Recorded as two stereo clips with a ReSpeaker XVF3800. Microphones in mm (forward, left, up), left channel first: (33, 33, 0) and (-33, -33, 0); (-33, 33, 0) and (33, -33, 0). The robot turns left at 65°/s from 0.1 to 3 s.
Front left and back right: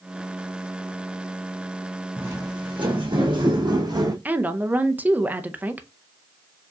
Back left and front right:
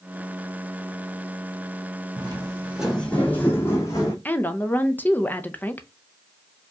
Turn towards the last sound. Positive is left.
turn(degrees=180)